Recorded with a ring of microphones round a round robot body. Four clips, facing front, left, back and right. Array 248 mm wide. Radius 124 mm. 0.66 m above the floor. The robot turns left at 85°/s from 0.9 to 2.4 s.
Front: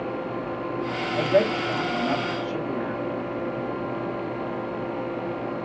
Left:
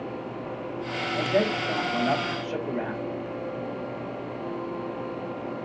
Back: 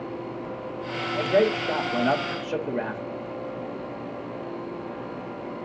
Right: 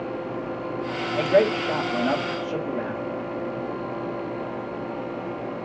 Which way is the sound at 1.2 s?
75° right.